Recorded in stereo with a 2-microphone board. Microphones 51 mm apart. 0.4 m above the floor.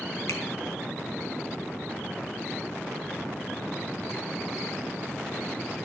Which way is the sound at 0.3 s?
65° left (ahead or behind).